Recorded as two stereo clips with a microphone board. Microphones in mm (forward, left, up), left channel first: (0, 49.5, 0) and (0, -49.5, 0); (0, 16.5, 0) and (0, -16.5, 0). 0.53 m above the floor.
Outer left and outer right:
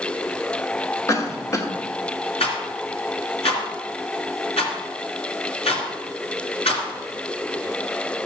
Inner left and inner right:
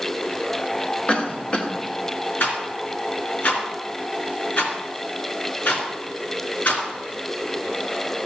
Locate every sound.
1.1 s a cough: 35° left (ahead or behind), 1.6 m
2.4 s a rattle: 80° left, 3 m